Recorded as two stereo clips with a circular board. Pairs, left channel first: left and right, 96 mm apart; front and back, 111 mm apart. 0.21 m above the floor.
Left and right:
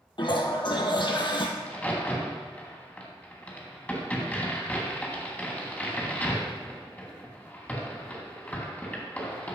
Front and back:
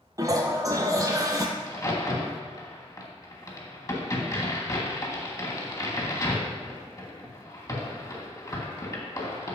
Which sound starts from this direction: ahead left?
A crack, at 1.6 s.